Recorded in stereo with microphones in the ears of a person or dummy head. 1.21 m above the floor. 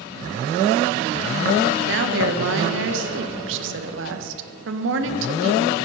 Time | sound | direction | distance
1.9 | a woman speaking | 65° right (ahead or behind) | 1.3 m